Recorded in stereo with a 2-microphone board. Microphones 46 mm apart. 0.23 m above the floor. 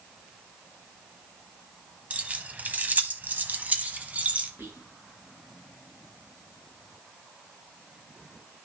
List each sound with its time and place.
2.1 s keys jangling: 30° right (ahead or behind), 1.1 m; by 4.5 s 35° right (ahead or behind), 1.6 m
4.6 s whispering: 60° right (ahead or behind), 3 m